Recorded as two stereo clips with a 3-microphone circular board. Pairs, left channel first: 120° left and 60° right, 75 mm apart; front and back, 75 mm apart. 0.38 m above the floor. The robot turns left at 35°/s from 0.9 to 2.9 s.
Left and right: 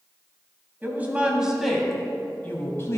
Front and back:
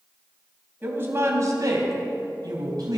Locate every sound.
0.8 s a woman speaking: 120° right, 2 m; by 3.0 s 170° left, 2 m